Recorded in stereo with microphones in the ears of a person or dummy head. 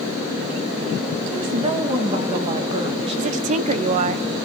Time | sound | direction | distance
1.3 | a woman speaking | 40° right (ahead or behind) | 1.9 m
3.2 | a woman speaking | 50° right (ahead or behind) | 0.7 m